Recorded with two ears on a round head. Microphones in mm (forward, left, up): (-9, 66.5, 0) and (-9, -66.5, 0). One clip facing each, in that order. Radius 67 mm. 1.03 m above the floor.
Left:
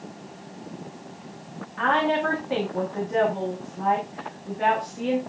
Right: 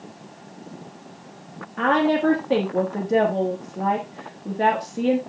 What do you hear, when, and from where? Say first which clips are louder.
1.8 s a woman speaking: right 3 dB; 45° right (ahead or behind), 1.5 m